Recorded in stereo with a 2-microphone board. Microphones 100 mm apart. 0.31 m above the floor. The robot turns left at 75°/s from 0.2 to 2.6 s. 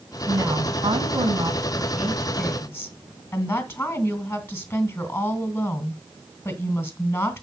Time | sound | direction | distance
0.3 | a woman speaking | 35° right | 2.5 m